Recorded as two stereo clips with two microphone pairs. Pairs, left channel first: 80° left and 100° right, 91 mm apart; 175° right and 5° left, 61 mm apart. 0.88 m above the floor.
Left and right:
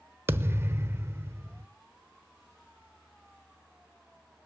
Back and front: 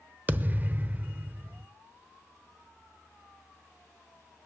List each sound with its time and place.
0.3 s a thud: 50° right, 0.7 m